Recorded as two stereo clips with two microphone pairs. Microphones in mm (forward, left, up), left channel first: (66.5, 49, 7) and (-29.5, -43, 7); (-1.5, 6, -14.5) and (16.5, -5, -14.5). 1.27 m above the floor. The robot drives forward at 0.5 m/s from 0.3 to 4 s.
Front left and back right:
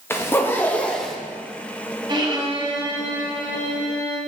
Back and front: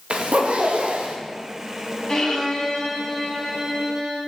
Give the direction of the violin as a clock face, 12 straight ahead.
6 o'clock.